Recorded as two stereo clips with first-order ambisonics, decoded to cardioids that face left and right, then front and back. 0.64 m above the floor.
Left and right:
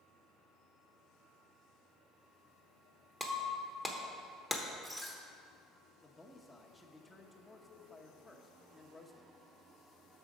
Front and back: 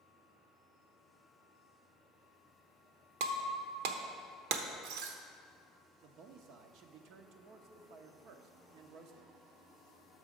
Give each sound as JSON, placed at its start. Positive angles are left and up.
{"t": 3.2, "sound": "breaking glass", "azimuth_deg": 180, "distance_m": 0.9}
{"t": 6.0, "sound": "a man speaking", "azimuth_deg": 175, "distance_m": 0.8}